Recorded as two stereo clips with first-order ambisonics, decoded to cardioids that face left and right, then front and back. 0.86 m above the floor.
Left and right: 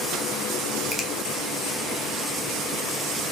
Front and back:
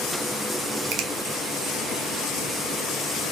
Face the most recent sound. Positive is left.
turn(degrees=165)